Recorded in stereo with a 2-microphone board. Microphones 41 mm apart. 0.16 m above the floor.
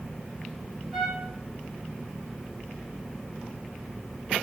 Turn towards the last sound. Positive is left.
turn(degrees=-5)  # may be behind; listen again after turning